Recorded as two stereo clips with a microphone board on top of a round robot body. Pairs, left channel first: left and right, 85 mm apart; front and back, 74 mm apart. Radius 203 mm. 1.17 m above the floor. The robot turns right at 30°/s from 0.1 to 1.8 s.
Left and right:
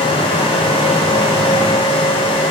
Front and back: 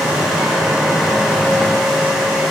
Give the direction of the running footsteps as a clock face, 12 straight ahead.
No running footsteps in this recording.